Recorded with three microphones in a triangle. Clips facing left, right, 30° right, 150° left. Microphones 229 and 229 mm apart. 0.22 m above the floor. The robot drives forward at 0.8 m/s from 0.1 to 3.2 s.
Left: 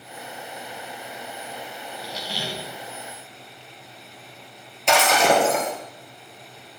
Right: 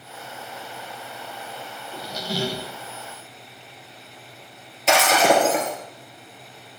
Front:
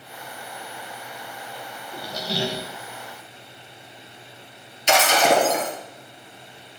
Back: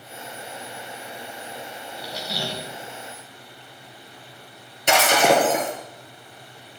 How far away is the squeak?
About 0.7 m.